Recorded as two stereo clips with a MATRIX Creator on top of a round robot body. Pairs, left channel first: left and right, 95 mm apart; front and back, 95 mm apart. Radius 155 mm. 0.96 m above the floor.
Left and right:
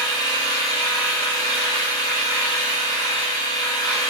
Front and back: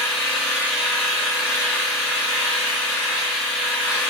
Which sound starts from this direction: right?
An engine running, at 0.0 s.